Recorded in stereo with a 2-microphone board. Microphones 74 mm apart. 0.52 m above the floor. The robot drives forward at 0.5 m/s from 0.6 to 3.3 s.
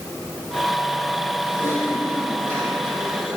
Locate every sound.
1.5 s typing on a keyboard: 35° right (ahead or behind), 7 m; by 3.4 s 40° right (ahead or behind), 6 m